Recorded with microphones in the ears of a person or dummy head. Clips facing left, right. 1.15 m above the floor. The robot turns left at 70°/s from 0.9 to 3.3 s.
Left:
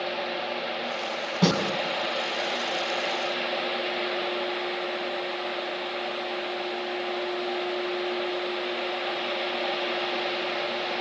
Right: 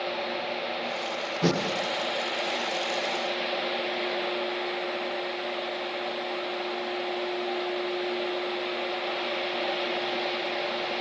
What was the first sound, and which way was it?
A snare drum, 85° left.